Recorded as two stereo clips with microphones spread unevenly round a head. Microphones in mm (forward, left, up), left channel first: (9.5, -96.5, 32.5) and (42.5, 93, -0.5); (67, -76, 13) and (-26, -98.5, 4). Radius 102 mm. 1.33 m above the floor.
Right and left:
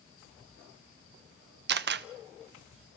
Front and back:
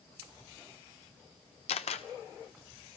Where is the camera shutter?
40° left, 0.7 m.